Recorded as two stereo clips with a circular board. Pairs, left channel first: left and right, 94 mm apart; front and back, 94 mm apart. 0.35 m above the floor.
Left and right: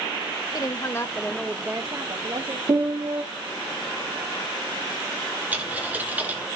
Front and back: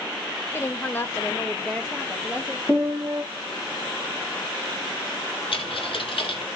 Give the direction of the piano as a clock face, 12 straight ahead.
3 o'clock.